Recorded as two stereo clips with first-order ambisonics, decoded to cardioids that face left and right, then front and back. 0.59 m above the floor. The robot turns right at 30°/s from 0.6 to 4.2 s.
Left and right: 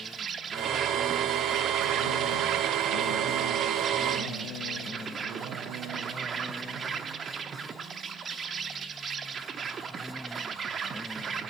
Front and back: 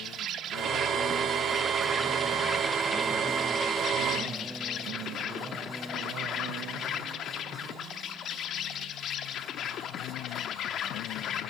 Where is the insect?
145° right, 0.7 m; by 11.5 s 35° right, 0.7 m.